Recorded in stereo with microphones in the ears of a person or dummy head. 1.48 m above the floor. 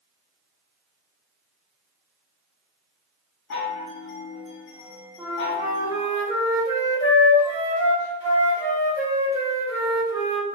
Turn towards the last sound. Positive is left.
turn(degrees=25)  # may be behind; listen again after turning